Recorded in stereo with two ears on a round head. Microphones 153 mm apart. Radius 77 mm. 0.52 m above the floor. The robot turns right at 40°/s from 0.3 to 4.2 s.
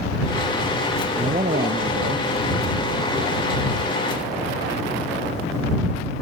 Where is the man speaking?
155° right; by 2.3 s 110° right.